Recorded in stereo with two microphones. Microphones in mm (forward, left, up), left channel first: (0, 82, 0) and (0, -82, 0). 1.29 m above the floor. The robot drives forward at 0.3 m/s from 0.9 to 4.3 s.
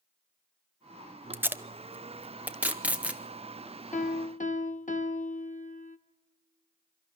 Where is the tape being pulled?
15° right (ahead or behind), 0.7 m; by 3.2 s 10° right (ahead or behind), 1.1 m.